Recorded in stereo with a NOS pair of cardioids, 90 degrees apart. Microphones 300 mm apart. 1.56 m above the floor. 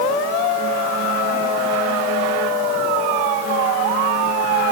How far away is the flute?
I don't hear a flute.